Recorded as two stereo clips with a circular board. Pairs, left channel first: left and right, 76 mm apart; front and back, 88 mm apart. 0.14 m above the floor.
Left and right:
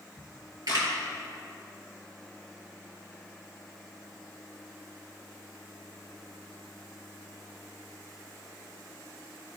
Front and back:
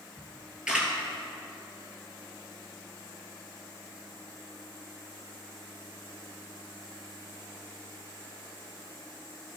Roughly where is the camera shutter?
Right.